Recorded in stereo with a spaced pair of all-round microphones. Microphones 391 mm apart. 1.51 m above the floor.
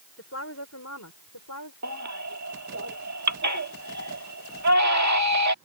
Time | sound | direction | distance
0.2 | a woman speaking | 35° left (ahead or behind) | ?
1.8 | a baby crying | 45° right (ahead or behind) | ?